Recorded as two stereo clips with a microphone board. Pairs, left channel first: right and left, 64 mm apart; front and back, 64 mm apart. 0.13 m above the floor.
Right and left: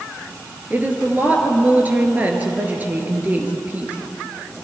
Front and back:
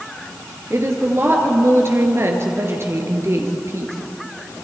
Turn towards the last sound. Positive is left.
turn(degrees=145)